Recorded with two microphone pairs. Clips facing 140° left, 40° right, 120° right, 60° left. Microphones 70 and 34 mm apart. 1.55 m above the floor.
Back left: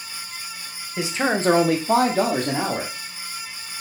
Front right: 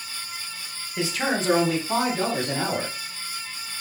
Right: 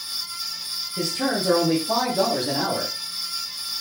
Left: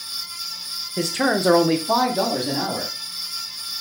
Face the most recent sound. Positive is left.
turn(degrees=150)